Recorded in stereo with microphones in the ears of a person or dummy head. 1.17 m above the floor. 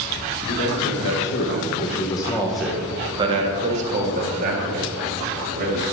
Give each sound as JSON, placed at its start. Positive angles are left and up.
{"t": 0.5, "sound": "a man speaking", "side_deg": 75, "distance_m": 1.5}